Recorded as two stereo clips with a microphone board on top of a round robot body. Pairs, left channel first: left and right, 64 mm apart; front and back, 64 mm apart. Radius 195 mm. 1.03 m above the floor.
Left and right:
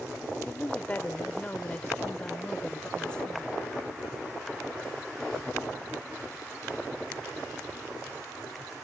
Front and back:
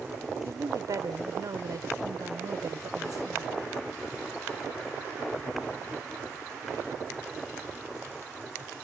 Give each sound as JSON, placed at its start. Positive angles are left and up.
{"t": 0.5, "sound": "a woman speaking", "azimuth_deg": 155}